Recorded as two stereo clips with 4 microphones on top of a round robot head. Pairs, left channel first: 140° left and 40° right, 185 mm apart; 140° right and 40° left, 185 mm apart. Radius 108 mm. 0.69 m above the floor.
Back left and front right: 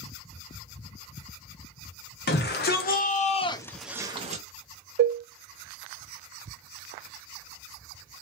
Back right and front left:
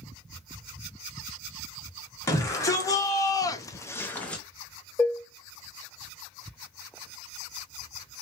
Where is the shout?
150° left, 1.7 m; by 4.4 s 55° right, 0.9 m.